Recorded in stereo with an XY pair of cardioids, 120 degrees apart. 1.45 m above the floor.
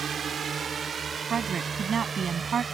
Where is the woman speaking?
40° right.